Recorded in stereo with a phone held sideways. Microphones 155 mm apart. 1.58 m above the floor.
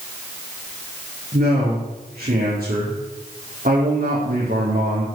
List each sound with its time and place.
1.3 s a man speaking: 65° right (ahead or behind), 5 m